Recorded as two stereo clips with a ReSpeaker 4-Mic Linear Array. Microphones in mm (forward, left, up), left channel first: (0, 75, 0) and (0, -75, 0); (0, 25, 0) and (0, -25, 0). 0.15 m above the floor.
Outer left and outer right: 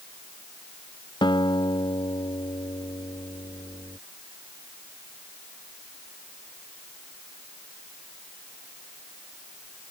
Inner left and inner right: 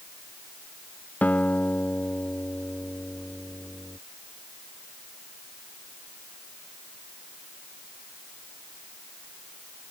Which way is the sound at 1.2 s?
30° left (ahead or behind).